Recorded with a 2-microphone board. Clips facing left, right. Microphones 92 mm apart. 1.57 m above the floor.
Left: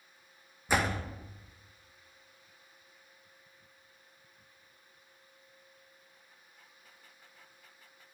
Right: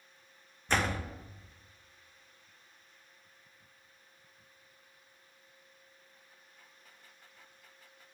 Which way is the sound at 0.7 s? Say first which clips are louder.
Left 1 dB; 10° left (ahead or behind).